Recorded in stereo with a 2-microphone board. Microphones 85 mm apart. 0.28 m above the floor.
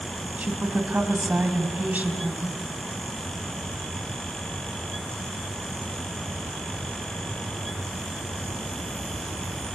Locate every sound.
0.4 s a woman speaking: 20° right (ahead or behind), 2.0 m